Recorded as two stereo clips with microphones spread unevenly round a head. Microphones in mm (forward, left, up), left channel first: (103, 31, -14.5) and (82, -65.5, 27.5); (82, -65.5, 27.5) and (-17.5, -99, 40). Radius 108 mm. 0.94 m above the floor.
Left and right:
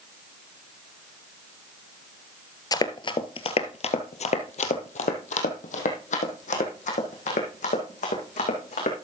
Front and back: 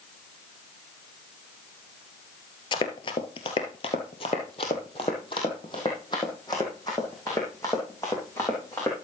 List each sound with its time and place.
2.7 s running footsteps: 15° left, 1.1 m; by 8.9 s 100° left, 3.5 m